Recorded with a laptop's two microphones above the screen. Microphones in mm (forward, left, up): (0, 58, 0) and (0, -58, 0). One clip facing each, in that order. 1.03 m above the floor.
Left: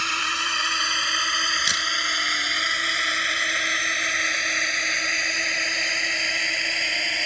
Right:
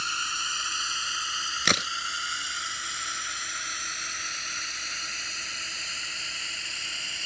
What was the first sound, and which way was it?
A drone, 85° left.